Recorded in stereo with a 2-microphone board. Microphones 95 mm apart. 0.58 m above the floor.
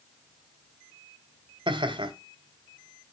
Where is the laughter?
65° right (ahead or behind), 2 m.